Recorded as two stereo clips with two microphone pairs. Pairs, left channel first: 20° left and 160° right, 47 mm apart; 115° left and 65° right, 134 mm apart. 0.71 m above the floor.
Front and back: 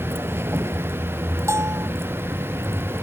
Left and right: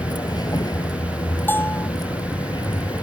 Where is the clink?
I don't hear a clink.